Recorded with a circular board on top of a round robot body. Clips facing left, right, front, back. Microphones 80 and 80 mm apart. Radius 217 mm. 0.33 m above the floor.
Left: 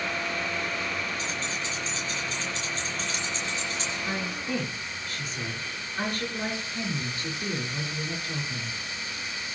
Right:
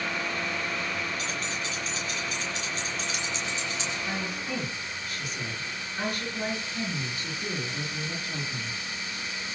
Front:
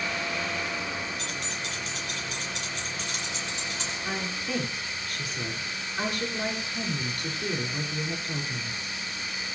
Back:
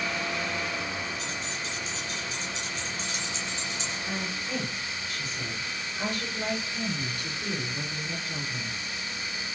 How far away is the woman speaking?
About 9 m.